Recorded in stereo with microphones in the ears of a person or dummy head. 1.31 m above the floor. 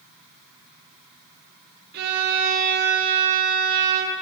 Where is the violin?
65° right (ahead or behind), 1.4 m.